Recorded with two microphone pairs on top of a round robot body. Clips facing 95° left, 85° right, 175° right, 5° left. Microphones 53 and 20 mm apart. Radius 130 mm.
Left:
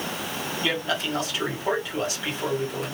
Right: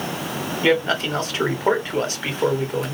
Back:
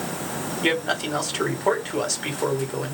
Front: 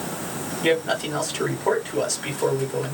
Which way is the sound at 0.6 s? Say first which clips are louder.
Right 8 dB, front 2 dB; 110° right.